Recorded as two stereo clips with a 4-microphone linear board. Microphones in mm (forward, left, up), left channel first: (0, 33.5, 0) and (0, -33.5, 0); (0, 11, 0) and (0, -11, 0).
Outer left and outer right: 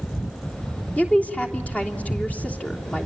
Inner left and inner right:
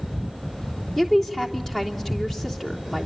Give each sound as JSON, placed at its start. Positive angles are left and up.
{"t": 1.0, "sound": "a woman speaking", "side_deg": 20, "distance_m": 3.0}